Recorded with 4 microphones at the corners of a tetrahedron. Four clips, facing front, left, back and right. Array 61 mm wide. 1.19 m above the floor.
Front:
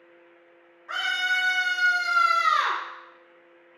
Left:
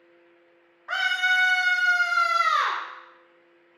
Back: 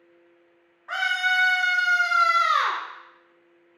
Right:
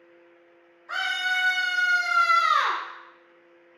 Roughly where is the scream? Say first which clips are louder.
Left 3 dB, back 2 dB; behind left.